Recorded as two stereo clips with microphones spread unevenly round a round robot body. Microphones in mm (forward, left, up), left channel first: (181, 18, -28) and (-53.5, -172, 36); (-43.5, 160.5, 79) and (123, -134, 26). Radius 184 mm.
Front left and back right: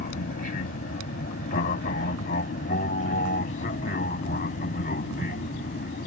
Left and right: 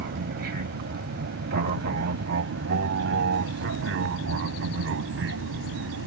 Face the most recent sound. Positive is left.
turn(degrees=-20)